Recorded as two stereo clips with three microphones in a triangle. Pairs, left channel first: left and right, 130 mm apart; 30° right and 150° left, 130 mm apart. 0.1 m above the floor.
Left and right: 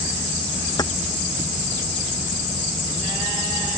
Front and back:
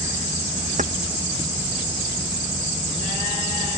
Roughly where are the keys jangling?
Behind left.